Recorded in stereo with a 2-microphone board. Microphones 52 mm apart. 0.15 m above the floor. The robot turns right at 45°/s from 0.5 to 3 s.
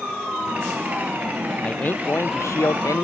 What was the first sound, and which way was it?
A man speaking, 25° left.